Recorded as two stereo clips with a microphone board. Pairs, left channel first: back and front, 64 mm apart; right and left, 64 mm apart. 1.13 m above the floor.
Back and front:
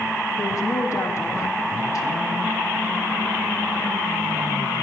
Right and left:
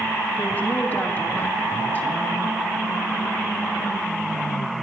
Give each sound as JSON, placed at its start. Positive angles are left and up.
{"t": 0.4, "sound": "a woman speaking", "azimuth_deg": -155, "distance_m": 2.0}